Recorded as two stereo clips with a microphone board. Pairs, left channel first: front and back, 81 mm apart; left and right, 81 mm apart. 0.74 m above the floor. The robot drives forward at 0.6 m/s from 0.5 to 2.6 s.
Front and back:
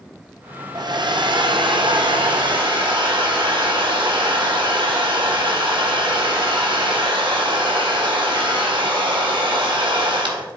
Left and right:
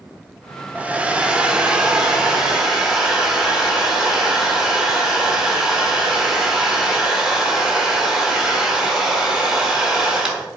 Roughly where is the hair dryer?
Behind.